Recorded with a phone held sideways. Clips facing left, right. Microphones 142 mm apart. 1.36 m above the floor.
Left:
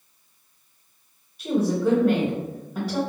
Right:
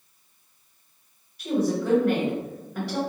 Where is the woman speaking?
15° left (ahead or behind), 1.2 m.